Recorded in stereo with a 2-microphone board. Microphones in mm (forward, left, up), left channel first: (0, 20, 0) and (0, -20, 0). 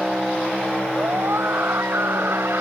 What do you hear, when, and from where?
0.9 s a scream: 75° right (ahead or behind)